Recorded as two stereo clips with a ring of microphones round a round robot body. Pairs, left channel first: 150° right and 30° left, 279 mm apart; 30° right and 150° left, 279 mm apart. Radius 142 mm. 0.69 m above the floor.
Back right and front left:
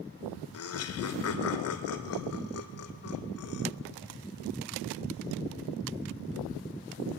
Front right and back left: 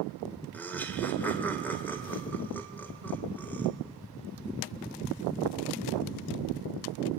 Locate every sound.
0.5 s laughter: 115° right, 3 m